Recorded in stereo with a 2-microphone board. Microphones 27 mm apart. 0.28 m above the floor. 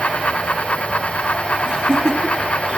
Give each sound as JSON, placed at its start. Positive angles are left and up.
{"t": 1.7, "sound": "laughter", "side_deg": -50, "distance_m": 2.0}